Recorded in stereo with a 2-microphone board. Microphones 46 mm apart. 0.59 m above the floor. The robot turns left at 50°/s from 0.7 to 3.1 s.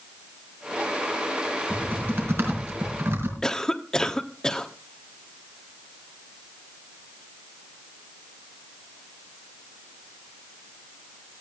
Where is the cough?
15° left (ahead or behind), 1.3 m.